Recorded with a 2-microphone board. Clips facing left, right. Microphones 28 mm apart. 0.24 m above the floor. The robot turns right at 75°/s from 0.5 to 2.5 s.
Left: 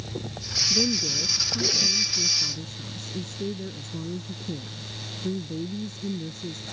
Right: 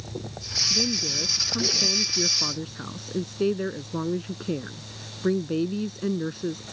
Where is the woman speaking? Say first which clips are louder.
Left 2 dB; 160° left; by 6.6 s 65° right.